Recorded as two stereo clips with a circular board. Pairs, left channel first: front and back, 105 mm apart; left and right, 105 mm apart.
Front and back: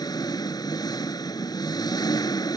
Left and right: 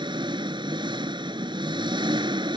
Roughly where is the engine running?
Ahead right.